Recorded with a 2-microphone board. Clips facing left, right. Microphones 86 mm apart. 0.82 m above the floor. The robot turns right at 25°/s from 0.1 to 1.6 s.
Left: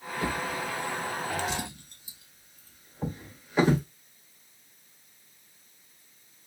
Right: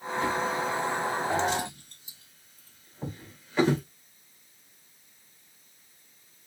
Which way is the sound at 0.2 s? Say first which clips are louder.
Right 3 dB; 45° left (ahead or behind).